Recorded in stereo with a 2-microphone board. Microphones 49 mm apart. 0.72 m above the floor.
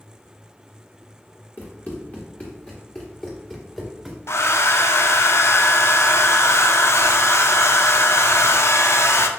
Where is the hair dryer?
65° left (ahead or behind), 0.6 m.